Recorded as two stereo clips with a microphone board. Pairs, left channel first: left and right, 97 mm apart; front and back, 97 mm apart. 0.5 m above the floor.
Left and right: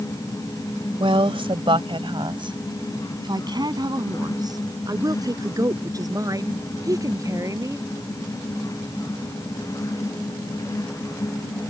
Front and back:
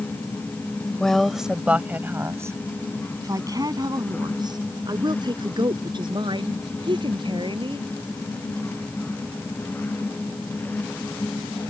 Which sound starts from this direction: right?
A woman speaking, at 1.0 s.